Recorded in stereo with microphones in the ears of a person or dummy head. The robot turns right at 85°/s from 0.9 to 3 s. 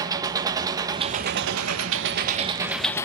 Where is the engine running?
165° right, 1.0 m; by 3.1 s 15° left, 1.0 m.